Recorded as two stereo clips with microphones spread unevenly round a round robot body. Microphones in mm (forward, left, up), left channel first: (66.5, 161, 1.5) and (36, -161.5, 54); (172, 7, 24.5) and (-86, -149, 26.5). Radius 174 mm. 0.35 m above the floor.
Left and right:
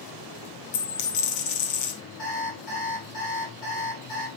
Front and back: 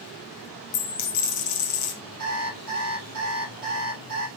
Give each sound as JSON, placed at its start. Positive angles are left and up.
{"t": 0.7, "sound": "a dropped coin", "azimuth_deg": 50, "distance_m": 1.6}
{"t": 2.2, "sound": "an alarm clock", "azimuth_deg": 145, "distance_m": 4.0}